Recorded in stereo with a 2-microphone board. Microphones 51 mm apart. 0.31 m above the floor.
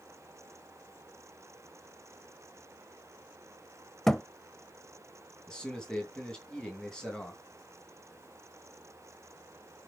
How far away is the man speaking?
About 2.5 m.